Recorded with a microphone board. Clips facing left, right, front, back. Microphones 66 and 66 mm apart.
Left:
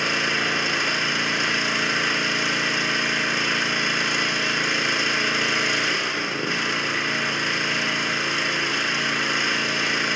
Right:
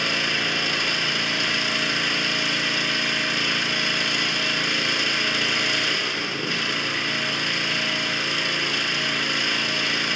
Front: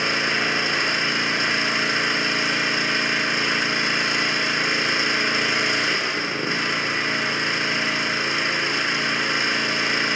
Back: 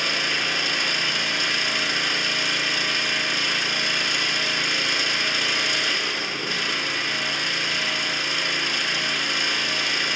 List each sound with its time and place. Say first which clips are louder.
0.0 s an engine running: left 2 dB, front 3 dB; 40° left, 0.7 m